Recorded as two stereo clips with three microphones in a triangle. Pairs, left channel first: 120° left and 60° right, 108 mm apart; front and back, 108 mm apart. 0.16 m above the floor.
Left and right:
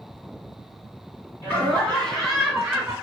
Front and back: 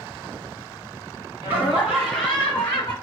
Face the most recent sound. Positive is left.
turn(degrees=15)